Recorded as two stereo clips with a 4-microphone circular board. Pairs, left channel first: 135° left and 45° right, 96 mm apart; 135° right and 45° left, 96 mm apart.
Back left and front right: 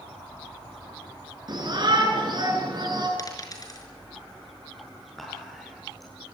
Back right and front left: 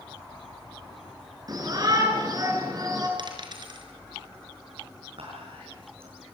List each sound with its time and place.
1.5 s a shout: 5° right, 9.5 m
3.2 s a dropped coin: 85° left, 4.5 m
5.2 s whispering: 50° left, 8.5 m